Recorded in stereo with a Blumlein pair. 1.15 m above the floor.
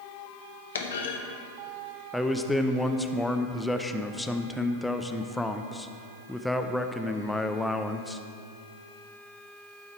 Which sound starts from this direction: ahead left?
A clunk, at 0.8 s.